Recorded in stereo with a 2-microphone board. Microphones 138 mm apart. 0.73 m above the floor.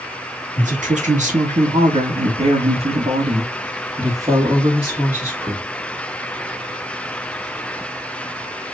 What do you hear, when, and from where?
0.6 s a woman speaking: 60° right (ahead or behind), 2 m; by 5.7 s 5° right (ahead or behind), 2 m